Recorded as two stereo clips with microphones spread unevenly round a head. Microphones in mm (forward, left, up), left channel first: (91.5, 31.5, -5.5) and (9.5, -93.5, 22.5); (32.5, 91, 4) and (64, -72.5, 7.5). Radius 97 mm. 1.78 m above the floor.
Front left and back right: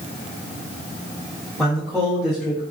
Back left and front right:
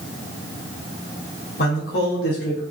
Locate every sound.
1.6 s a man speaking: 145° left, 0.9 m